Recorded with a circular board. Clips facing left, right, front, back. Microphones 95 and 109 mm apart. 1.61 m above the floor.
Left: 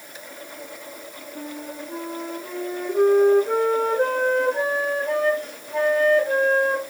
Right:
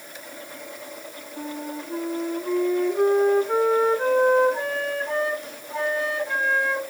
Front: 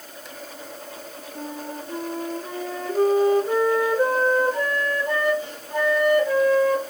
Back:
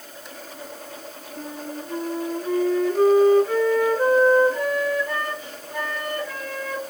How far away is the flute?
About 2.5 m.